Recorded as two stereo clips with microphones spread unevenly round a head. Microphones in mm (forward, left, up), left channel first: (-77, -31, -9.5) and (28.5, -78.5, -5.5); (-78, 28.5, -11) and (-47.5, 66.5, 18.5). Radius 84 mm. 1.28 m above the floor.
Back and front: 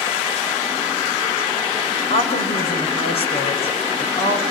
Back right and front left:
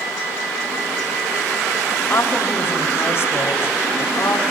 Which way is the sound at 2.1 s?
170° right.